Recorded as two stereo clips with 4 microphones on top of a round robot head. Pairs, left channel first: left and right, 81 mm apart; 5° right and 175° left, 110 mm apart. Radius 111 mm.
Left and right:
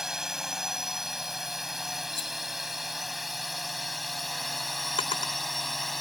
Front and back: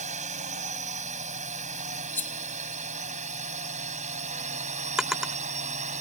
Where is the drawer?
90° left.